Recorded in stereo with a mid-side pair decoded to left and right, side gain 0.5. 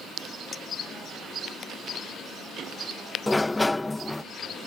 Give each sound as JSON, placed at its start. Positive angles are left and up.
{"t": 0.5, "sound": "a clink", "azimuth_deg": 40}
{"t": 3.3, "sound": "a sliding door", "azimuth_deg": 15}